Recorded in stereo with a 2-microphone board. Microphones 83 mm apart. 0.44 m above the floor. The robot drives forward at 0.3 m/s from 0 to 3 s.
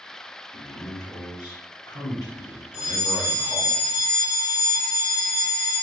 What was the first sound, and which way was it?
A man speaking, 50° left (ahead or behind).